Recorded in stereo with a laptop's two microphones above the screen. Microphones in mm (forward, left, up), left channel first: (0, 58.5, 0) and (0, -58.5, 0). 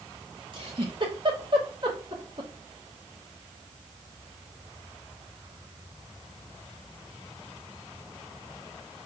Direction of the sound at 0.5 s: 45° right (ahead or behind).